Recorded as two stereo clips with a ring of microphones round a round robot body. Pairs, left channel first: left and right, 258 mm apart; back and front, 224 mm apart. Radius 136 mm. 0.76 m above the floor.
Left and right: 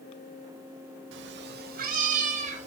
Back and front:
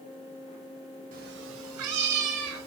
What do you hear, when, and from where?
1.1 s a cat meowing: 55° right, 0.7 m; by 2.7 s 25° right, 1.5 m